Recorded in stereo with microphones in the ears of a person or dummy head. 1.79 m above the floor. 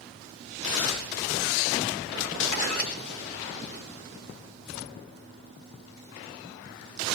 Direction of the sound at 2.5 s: 55° left (ahead or behind).